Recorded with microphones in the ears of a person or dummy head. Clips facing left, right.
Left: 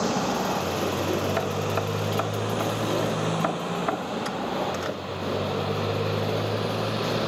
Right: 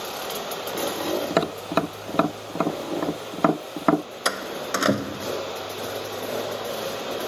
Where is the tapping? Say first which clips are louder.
Right 3 dB; 55° right (ahead or behind).